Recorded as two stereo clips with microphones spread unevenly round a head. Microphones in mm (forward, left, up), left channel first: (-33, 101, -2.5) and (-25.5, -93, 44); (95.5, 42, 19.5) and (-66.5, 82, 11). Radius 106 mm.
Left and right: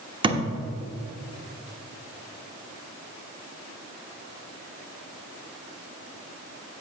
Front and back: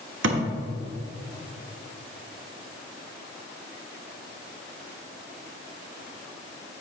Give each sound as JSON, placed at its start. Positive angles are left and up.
{"t": 0.2, "sound": "a thud", "azimuth_deg": -150, "distance_m": 1.2}